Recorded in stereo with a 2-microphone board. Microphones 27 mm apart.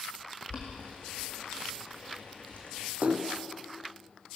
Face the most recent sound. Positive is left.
turn(degrees=-80)